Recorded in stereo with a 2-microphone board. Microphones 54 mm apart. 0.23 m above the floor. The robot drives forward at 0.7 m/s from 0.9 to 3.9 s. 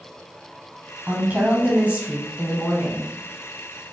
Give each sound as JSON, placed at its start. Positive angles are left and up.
{"t": 1.1, "sound": "a woman speaking", "side_deg": -30, "distance_m": 1.2}